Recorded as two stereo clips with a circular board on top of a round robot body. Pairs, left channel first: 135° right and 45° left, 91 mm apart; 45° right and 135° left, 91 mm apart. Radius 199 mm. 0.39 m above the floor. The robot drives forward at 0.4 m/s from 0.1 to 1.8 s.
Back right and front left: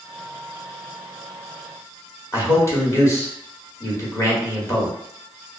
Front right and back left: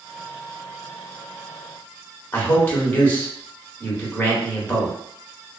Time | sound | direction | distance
2.3 | a man speaking | 100° right | 1.5 m